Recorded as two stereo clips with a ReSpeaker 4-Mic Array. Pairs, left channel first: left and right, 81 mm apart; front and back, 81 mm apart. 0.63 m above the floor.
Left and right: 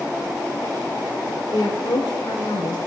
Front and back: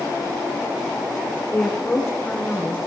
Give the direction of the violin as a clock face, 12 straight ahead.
No violin in this recording.